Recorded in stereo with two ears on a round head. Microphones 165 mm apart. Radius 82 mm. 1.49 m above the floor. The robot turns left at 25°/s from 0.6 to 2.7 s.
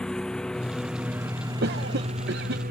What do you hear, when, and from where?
0.0 s a lawn mower: 5° left; by 2.7 s 50° right
1.6 s a cough: 55° right (ahead or behind); by 2.6 s 60° right (ahead or behind)